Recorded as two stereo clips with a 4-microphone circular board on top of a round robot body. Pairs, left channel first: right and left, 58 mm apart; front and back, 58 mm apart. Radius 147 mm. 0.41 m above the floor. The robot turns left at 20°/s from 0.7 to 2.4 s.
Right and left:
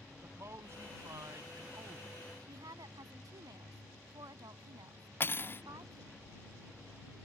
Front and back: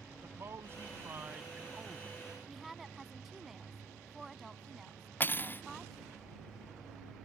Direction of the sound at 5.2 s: 50° right.